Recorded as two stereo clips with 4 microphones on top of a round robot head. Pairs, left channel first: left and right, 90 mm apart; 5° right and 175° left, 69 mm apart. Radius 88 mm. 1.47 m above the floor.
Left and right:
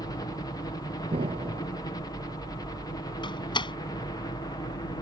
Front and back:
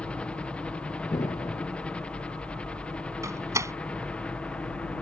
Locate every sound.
0.0 s a helicopter: 60° left
1.1 s an explosion: 55° right
3.2 s a door slam: 125° left